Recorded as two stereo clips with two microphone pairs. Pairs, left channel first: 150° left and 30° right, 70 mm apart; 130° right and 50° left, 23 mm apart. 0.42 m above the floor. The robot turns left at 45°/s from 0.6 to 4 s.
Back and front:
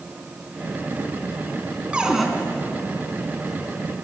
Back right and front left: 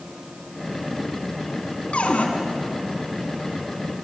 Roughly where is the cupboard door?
Right.